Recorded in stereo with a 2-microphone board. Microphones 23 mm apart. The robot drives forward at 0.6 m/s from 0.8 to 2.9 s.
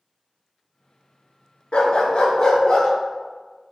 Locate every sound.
1.7 s a dog barking: 50° left (ahead or behind), 0.6 m; by 2.9 s 25° left (ahead or behind), 1.0 m